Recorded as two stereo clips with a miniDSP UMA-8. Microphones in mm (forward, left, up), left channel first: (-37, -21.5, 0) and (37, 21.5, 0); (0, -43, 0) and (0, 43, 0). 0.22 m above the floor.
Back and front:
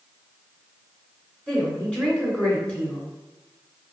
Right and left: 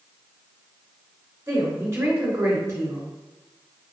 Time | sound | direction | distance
1.5 | a woman speaking | 135° left | 1.6 m